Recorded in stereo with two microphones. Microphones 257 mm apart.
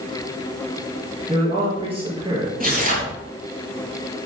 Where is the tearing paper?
35° right (ahead or behind), 3 m.